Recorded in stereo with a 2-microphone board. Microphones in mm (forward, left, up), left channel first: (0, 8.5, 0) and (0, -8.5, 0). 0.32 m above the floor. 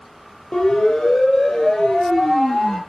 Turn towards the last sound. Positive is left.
turn(degrees=30)  # may be behind; listen again after turning